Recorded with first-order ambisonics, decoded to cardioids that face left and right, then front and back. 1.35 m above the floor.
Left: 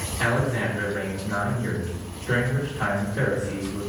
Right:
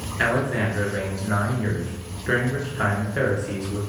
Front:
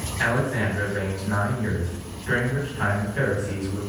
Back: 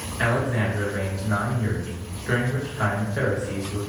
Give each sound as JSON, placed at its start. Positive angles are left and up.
{"t": 0.2, "sound": "a man speaking", "azimuth_deg": -100, "distance_m": 1.5}